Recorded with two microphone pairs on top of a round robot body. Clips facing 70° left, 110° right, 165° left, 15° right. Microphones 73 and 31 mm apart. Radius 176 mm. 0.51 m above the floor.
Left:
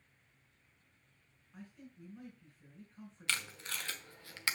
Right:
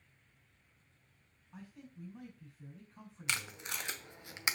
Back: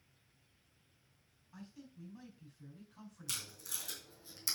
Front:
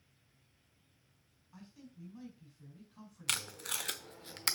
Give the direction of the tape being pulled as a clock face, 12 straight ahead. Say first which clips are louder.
Even, front 8 dB; 1 o'clock.